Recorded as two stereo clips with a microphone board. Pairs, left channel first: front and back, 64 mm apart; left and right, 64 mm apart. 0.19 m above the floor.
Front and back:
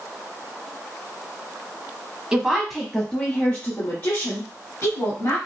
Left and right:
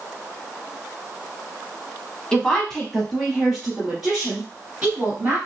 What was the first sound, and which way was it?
A woman speaking, 135° left.